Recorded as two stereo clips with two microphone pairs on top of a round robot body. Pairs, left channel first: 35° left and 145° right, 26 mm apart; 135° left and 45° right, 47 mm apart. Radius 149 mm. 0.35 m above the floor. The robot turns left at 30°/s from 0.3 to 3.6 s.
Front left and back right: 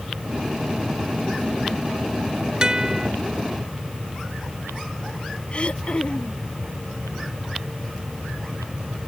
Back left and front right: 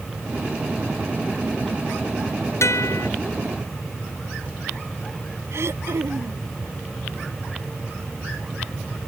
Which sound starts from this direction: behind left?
A guitar, at 2.6 s.